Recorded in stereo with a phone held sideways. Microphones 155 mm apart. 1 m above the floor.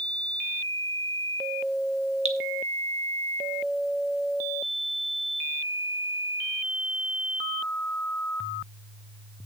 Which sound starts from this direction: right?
Dripping, at 2.2 s.